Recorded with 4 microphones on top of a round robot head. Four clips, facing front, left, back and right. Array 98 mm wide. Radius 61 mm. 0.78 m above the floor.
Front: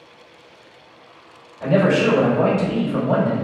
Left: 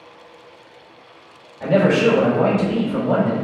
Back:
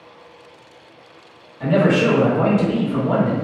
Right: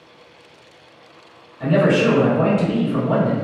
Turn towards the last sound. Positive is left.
turn(degrees=-130)